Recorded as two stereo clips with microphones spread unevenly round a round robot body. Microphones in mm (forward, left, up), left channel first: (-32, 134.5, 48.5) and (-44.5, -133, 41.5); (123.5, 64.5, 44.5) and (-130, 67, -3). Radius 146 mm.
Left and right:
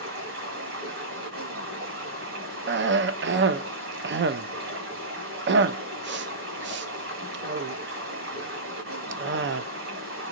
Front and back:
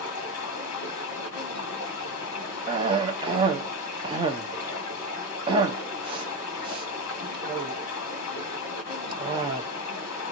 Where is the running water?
30° right, 1.5 m.